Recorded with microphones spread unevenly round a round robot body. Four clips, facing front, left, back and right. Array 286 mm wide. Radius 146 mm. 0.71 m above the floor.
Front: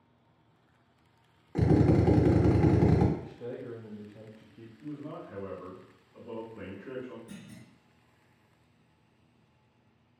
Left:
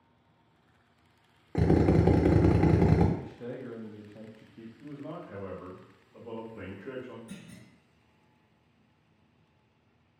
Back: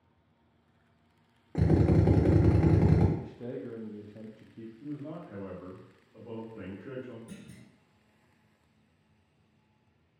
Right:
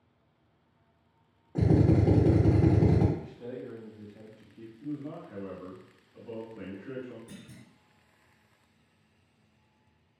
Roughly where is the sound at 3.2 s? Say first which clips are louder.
Even, back 1 dB; behind left.